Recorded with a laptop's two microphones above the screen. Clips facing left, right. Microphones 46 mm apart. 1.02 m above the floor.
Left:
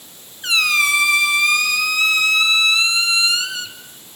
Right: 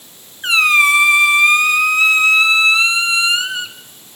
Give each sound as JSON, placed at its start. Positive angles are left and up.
{"t": 0.4, "sound": "a squeak", "side_deg": -30, "distance_m": 0.9}